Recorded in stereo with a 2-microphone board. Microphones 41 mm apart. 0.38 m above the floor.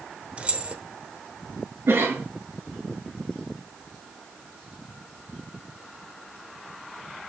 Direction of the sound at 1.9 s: 70° right (ahead or behind).